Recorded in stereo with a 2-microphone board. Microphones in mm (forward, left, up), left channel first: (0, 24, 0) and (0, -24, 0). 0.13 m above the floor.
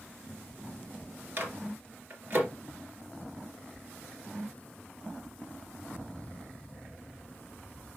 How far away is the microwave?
About 2 m.